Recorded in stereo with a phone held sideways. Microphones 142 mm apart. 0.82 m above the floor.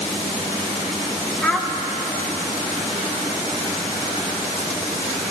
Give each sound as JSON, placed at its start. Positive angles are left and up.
{"t": 1.4, "sound": "a child speaking", "side_deg": 5, "distance_m": 0.9}